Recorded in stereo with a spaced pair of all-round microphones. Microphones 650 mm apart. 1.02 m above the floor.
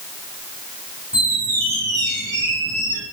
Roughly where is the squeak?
Centre.